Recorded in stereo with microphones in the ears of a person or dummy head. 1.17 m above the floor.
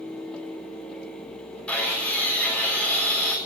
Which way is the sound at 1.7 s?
Centre (ahead or behind).